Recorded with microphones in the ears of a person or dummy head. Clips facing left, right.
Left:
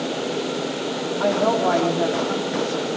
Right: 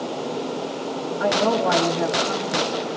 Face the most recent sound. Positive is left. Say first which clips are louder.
# left 1 dB
turn(degrees=-20)  # may be behind; listen again after turning